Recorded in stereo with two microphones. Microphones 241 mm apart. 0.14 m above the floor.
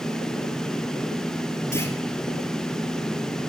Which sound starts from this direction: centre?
A clunk, at 1.7 s.